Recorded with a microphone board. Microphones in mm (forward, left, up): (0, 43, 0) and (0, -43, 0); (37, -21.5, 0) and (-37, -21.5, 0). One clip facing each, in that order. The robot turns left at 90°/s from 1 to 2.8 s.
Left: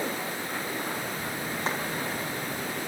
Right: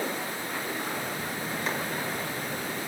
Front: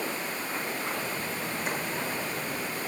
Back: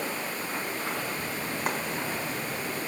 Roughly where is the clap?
Behind left.